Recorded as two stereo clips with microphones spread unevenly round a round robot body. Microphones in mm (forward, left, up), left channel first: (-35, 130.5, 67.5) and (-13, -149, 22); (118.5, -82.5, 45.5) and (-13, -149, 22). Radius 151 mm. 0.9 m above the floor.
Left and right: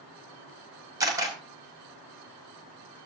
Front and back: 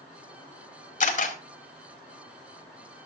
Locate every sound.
1.0 s a camera shutter: 5° right, 4.5 m